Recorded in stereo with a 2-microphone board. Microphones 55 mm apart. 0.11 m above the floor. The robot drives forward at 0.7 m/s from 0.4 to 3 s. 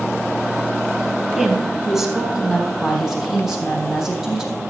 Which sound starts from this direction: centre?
A woman speaking, at 1.4 s.